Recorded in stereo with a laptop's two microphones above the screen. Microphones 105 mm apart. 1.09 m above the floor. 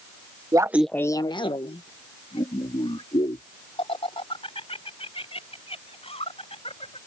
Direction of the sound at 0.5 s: 40° right (ahead or behind).